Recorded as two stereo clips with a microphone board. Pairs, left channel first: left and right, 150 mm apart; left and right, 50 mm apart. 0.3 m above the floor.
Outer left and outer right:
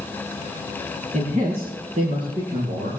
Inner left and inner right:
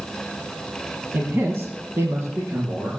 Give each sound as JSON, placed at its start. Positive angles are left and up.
{"t": 1.1, "sound": "a man speaking", "side_deg": -60, "distance_m": 1.8}